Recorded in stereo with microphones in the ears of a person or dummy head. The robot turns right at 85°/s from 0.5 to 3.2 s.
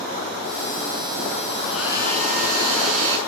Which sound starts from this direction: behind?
A hair dryer, at 1.6 s.